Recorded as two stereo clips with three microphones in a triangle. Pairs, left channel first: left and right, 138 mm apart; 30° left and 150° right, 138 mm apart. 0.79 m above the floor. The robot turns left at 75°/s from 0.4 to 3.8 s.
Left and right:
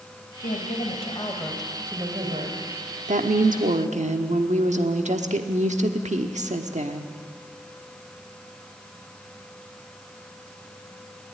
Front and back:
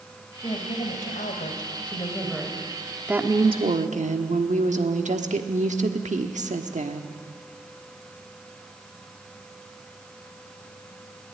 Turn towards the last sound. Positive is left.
turn(degrees=-120)